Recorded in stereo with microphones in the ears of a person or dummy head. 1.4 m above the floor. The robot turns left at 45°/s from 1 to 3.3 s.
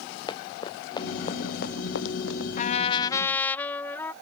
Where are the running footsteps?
25° left (ahead or behind); by 2.5 s 85° left.